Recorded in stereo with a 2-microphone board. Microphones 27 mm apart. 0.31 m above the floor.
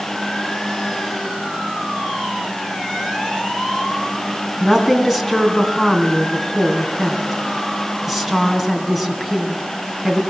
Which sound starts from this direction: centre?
A woman speaking, at 4.6 s.